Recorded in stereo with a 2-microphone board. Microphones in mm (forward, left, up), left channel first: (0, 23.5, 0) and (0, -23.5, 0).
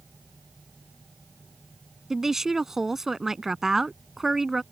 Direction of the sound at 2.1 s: 10° right (ahead or behind).